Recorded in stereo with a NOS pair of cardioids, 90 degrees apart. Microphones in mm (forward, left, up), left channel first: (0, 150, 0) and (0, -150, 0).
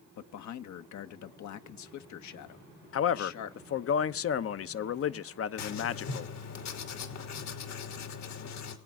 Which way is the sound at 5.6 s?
65° left.